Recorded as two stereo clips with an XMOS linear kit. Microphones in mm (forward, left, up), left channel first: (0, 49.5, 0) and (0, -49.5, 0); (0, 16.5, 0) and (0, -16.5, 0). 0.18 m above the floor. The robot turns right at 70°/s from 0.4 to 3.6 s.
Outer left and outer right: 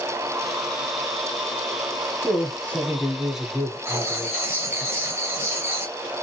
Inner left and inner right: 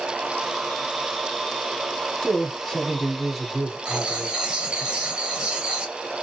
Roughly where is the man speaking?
Left.